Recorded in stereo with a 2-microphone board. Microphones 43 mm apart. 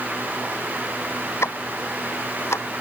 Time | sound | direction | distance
1.4 | ticking | 85° left | ?